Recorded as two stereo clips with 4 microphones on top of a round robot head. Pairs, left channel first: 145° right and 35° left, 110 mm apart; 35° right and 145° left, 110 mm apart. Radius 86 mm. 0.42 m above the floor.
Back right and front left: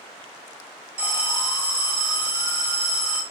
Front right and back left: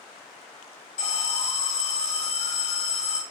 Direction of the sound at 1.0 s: 35° right.